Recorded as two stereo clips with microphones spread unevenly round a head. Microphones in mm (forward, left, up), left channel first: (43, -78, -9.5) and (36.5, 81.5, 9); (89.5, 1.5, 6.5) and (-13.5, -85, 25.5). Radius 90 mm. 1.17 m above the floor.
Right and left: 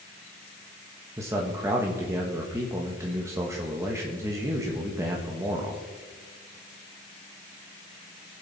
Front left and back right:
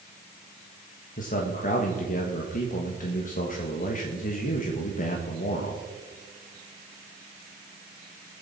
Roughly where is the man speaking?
Ahead.